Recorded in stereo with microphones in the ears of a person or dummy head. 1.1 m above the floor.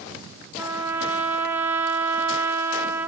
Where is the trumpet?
10° right (ahead or behind), 1.1 m.